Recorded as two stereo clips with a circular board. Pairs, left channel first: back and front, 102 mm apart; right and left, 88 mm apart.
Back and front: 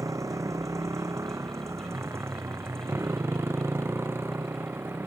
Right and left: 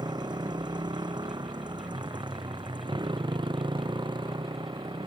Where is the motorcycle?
55° left; by 5.1 s 65° left.